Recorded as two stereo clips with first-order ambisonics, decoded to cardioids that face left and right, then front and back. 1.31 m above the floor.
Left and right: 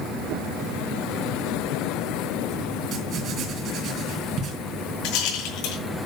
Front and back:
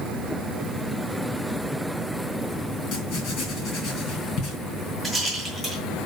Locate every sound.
2.9 s writing: 40° right, 3.5 m
5.0 s a rattle: 90° left, 6 m